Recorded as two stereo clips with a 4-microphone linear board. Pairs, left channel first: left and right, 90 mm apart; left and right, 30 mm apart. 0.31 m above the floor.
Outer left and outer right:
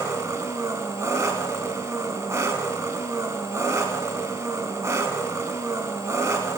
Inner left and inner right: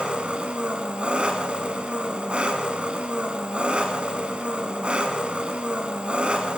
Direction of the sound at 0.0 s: 35° right (ahead or behind).